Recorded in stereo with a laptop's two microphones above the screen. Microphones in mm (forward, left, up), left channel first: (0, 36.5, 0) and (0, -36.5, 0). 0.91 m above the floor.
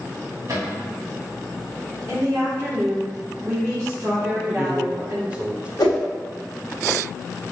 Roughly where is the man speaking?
Centre.